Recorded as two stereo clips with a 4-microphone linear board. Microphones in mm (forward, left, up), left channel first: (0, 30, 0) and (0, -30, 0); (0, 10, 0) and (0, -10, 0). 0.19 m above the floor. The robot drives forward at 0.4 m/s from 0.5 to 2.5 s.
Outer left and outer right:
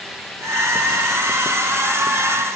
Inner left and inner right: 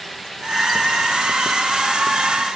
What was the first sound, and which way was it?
Only background noise.